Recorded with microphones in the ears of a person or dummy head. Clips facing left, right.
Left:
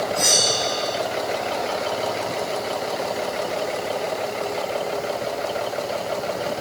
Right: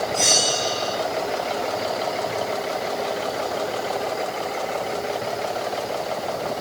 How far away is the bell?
About 3.5 m.